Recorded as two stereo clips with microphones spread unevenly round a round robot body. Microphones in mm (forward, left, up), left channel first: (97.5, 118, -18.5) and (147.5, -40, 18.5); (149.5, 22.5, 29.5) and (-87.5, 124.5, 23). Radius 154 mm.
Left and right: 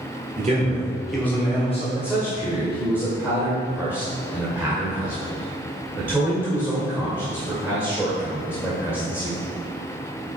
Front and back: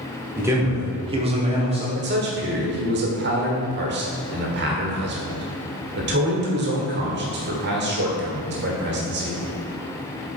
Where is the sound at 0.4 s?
125° right, 1.3 m; by 1.9 s 100° left, 1.3 m.